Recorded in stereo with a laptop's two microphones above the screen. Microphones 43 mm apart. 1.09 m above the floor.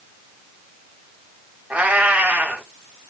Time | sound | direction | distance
1.7 | a cat meowing | 30° right (ahead or behind) | 1.1 m